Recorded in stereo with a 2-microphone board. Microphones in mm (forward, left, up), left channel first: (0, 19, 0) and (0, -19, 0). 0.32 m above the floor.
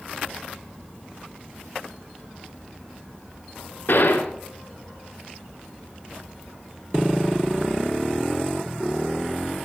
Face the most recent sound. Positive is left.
turn(degrees=75)  # may be behind; listen again after turning